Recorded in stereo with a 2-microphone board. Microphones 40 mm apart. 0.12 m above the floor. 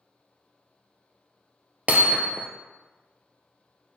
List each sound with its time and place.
1.9 s hammering: 40° right (ahead or behind), 0.6 m